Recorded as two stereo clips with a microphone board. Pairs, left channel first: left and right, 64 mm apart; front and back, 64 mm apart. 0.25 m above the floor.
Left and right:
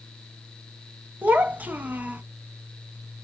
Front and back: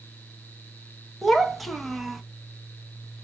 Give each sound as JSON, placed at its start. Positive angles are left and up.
{"t": 1.2, "sound": "a child speaking", "azimuth_deg": -95, "distance_m": 0.5}